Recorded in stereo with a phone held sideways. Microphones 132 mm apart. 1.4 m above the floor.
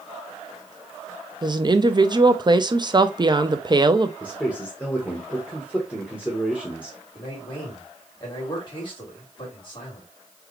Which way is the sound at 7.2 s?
35° left (ahead or behind).